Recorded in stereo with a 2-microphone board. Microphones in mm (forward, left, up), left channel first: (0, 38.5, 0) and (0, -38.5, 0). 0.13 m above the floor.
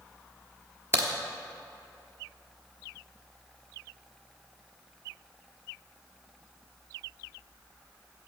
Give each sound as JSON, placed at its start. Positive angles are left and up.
{"t": 0.9, "sound": "a crack", "side_deg": -35, "distance_m": 1.1}